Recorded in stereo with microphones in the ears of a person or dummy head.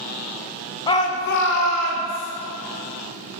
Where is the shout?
25° left (ahead or behind), 0.7 m; by 2.3 s 75° left (ahead or behind), 1.3 m.